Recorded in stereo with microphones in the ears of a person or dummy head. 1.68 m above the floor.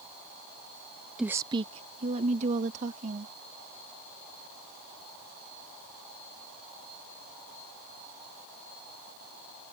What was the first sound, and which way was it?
A woman speaking, 5° right (ahead or behind).